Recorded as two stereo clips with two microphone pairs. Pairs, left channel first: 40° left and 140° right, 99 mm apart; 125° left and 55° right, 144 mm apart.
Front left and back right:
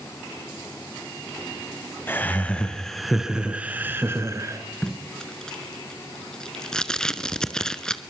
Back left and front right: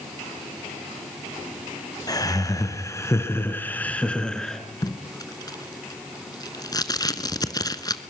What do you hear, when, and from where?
2.1 s laughter: 90° left, 1.9 m; by 4.6 s 150° right, 2.0 m
4.8 s tape being pulled: 110° left, 0.9 m